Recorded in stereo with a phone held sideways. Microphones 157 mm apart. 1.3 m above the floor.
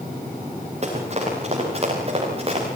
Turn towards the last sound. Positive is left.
turn(degrees=-40)  # may be behind; listen again after turning